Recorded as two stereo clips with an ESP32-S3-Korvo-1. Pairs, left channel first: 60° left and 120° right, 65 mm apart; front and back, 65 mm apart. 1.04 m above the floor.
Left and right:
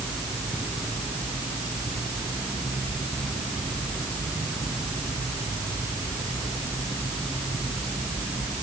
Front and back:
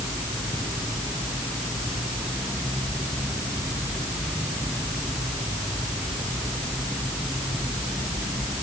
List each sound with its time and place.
Only background noise.